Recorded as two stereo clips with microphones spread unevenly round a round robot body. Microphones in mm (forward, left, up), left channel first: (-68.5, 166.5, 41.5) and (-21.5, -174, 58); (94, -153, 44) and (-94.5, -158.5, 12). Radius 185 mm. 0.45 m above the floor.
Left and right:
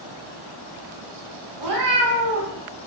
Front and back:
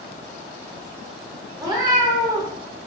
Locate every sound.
1.6 s a cat meowing: 110° right, 1.1 m